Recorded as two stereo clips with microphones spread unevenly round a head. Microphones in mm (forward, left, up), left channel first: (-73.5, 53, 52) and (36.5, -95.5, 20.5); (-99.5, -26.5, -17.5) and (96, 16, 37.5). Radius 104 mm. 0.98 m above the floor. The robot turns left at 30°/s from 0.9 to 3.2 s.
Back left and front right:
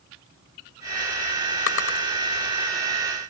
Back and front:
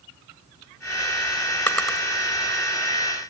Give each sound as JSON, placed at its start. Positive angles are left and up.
{"t": 1.7, "sound": "a drawer", "azimuth_deg": 105, "distance_m": 1.7}